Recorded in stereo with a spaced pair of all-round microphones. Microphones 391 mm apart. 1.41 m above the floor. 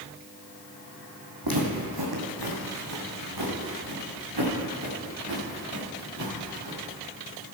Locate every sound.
1.4 s footsteps: 60° right (ahead or behind), 3 m; by 6.8 s 80° right, 7.5 m